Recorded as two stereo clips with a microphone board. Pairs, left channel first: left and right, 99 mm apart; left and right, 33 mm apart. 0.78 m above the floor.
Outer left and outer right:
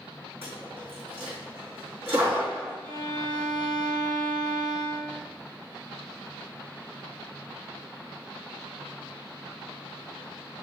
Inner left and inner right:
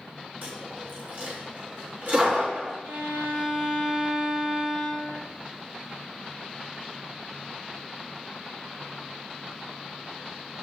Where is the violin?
60° right (ahead or behind), 3 m.